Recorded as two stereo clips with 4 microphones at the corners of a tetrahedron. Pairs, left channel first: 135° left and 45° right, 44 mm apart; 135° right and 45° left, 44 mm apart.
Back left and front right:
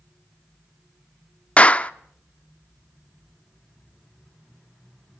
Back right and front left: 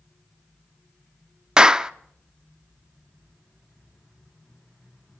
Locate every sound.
1.6 s a clap: 105° left, 0.5 m